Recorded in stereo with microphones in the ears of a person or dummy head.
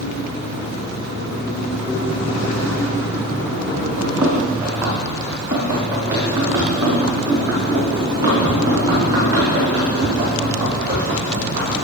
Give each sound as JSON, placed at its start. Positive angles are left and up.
{"t": 4.0, "sound": "running footsteps", "side_deg": -5, "distance_m": 4.5}